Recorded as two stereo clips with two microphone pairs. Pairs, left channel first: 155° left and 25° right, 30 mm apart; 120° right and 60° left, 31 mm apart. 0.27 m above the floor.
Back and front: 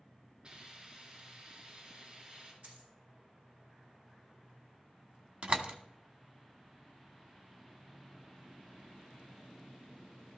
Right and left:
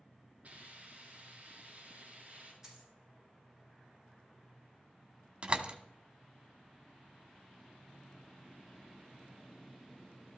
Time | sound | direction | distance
0.4 | a hiss | 25° left | 6 m
2.6 | a dropped coin | 15° right | 7 m
5.4 | a door slam | 15° left | 1.2 m